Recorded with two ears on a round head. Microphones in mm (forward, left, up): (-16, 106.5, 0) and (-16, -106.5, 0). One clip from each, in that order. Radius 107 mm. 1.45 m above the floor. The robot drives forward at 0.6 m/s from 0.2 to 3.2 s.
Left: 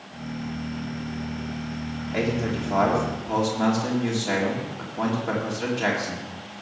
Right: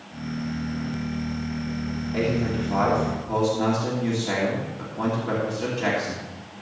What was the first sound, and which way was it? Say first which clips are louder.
A man speaking: right 1 dB; 35° left (ahead or behind).